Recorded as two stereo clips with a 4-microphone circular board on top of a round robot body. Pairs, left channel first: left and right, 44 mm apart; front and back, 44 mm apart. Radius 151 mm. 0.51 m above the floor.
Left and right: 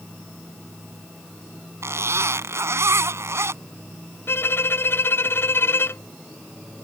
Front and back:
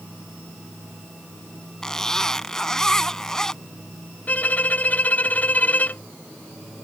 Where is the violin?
55° left.